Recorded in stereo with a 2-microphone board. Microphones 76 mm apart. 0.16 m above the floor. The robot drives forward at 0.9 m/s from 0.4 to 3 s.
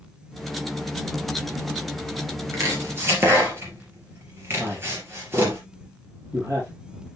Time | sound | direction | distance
2.5 | chopping | 40° right (ahead or behind) | 3 m
4.6 | a man speaking | 40° right (ahead or behind) | 3.5 m